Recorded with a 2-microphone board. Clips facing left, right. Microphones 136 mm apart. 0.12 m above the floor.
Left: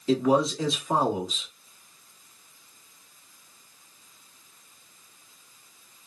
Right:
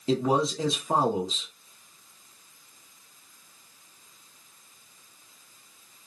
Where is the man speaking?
30° right (ahead or behind), 1.1 m.